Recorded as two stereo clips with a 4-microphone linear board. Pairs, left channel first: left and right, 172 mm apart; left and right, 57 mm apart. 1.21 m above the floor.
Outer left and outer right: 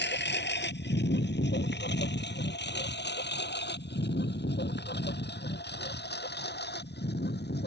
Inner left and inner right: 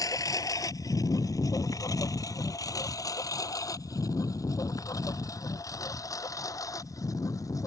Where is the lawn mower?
80° left; by 7.7 s 70° left (ahead or behind).